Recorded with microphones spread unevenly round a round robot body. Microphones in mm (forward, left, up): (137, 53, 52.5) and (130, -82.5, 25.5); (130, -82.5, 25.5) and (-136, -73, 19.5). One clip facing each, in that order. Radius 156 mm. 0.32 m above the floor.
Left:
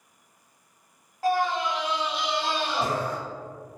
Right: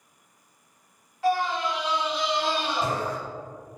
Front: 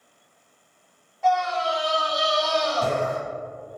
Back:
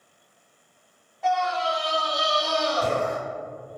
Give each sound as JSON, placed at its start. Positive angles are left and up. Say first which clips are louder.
{"t": 1.2, "sound": "a scream", "louder": "even, front 2 dB", "azimuth_deg": 90, "distance_m": 1.1}